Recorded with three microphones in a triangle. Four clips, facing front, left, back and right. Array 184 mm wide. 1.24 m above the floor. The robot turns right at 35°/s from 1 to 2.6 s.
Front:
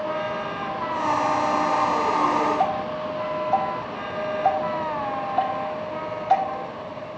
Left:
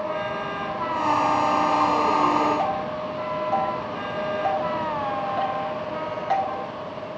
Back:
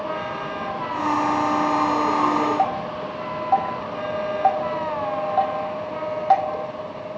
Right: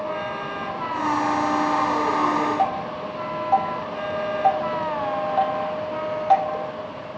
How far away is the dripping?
About 1.9 m.